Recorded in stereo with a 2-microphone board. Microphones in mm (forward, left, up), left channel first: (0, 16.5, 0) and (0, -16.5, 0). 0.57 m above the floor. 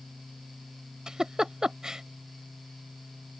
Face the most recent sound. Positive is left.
turn(degrees=-15)  # may be behind; listen again after turning